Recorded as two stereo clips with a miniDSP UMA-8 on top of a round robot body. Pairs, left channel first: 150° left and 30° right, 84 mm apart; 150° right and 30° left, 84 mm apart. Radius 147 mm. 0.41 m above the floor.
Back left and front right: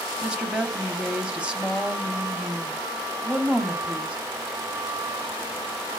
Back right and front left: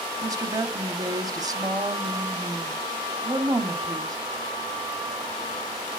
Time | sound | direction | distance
0.2 | a woman speaking | 45° left | 1.1 m